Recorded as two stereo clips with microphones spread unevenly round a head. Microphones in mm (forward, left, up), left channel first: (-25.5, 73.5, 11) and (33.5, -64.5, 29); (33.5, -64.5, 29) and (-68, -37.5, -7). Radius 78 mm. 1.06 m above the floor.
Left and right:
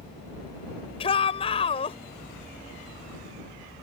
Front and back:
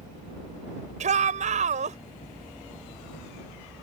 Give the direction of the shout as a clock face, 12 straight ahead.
6 o'clock.